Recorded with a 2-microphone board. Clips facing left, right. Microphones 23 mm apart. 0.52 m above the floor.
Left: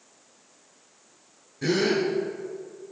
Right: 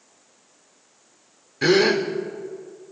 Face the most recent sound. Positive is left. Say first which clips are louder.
# right 6 dB
turn(degrees=-65)  # may be behind; listen again after turning